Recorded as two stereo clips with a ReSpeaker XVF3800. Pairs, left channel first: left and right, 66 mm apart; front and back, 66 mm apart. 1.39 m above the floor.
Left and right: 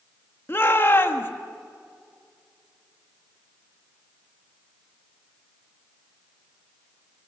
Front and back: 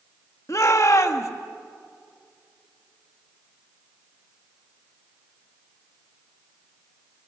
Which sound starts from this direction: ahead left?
A shout, at 0.5 s.